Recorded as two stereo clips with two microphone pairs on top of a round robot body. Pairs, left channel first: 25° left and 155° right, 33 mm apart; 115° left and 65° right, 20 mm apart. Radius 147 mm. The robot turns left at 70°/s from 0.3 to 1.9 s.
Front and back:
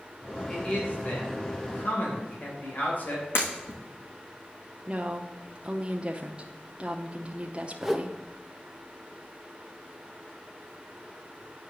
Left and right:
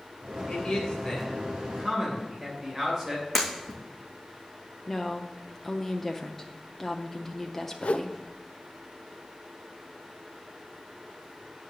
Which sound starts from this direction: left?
A man speaking, at 0.5 s.